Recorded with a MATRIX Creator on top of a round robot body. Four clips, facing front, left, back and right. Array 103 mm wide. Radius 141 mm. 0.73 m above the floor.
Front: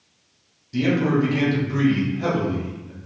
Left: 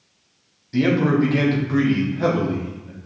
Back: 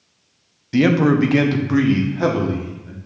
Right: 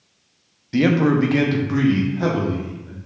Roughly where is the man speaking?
Behind right.